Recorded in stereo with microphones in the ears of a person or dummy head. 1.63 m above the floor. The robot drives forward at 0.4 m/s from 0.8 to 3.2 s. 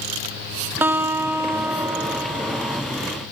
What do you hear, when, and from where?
0.8 s a guitar: 10° right (ahead or behind), 1.5 m; by 2.8 s 20° right (ahead or behind), 0.9 m